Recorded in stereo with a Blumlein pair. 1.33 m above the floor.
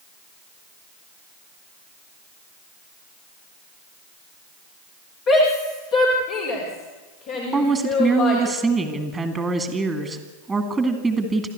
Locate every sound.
5.3 s a shout: 35° left, 3.5 m; by 8.4 s 45° left, 5.5 m
7.5 s a woman speaking: 10° right, 2 m